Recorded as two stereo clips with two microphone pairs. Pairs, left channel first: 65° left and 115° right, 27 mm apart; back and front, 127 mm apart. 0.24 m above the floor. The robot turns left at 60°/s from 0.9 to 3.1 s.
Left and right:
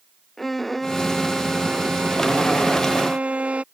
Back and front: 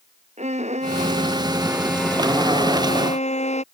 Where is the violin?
20° right; by 3.6 s 155° right.